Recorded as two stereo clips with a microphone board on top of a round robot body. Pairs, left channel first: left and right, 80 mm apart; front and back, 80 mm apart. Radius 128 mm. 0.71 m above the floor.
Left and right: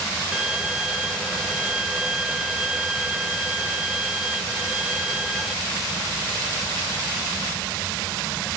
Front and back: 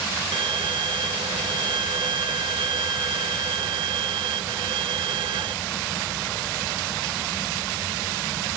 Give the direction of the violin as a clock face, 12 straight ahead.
6 o'clock.